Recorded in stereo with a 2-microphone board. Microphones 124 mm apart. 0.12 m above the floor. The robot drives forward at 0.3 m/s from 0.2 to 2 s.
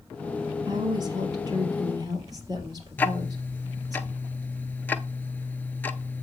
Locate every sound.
0.7 s a woman speaking: 35° right (ahead or behind), 2.5 m; by 4.0 s 30° right (ahead or behind), 3 m
3.0 s ticking: 15° left (ahead or behind), 0.5 m